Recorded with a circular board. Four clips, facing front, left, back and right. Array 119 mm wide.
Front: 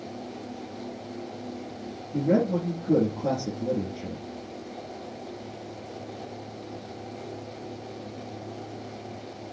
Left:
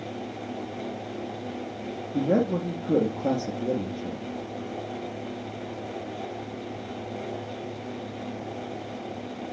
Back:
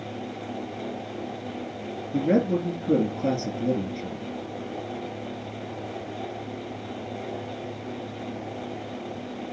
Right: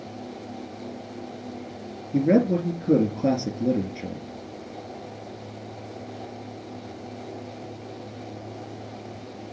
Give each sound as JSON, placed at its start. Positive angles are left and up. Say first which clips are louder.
{"t": 2.1, "sound": "a man speaking", "louder": "right 4 dB, back 1 dB", "azimuth_deg": -120, "distance_m": 5.0}